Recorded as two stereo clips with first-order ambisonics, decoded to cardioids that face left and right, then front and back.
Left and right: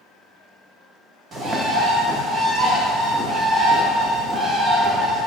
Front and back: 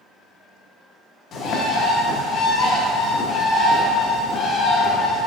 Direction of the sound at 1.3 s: 35° right.